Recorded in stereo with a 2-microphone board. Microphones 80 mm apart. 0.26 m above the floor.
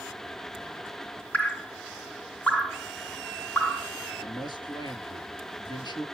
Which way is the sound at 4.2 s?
65° left (ahead or behind).